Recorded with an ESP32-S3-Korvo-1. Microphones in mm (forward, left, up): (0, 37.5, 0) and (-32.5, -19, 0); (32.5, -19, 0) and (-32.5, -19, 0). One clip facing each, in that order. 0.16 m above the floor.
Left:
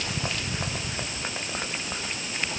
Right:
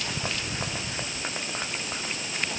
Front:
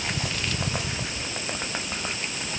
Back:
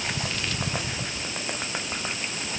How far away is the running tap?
I don't hear a running tap.